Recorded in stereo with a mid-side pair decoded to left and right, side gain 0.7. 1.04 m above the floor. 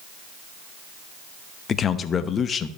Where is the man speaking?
35° left, 1.0 m.